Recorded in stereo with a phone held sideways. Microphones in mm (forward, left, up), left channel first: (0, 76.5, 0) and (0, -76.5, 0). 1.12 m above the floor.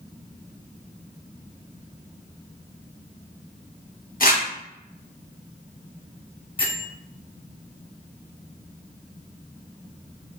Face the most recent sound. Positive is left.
turn(degrees=35)  # may be behind; listen again after turning